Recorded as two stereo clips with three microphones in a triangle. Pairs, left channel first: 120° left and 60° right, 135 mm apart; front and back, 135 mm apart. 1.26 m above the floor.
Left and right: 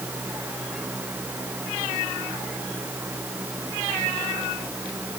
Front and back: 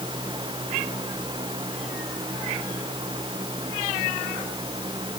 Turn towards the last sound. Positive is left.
No sound to turn to.